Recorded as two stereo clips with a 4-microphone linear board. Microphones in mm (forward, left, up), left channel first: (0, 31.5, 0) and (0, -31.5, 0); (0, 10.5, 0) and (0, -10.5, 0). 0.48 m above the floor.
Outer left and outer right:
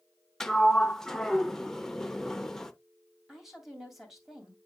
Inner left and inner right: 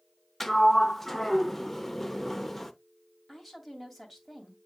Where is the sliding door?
10° left (ahead or behind), 0.6 m.